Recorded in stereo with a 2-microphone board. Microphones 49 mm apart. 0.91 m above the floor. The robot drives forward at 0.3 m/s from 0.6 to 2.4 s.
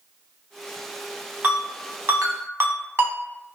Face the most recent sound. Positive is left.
turn(degrees=-55)  # may be behind; listen again after turning